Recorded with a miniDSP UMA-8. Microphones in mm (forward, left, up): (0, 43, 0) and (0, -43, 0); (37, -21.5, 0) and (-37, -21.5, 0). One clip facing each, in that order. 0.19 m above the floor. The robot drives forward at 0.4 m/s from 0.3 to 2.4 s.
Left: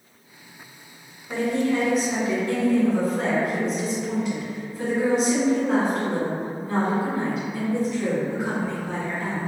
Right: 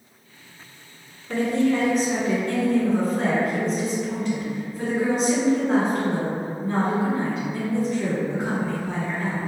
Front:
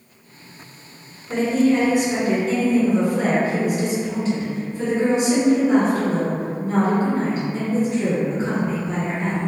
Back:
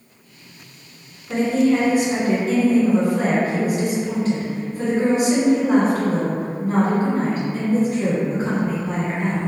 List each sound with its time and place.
1.3 s a woman speaking: 175° left, 1.6 m